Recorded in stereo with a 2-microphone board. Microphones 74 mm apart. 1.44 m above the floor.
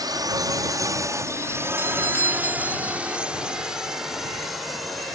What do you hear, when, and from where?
0.0 s a drone: 65° right (ahead or behind); by 5.2 s centre (ahead or behind)
1.8 s a doorbell: 35° left (ahead or behind)